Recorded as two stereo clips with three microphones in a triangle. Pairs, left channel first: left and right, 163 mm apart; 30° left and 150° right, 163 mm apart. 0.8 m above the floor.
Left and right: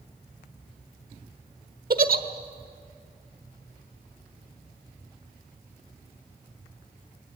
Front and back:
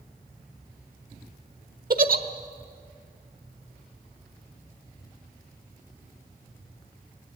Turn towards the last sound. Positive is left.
turn(degrees=-120)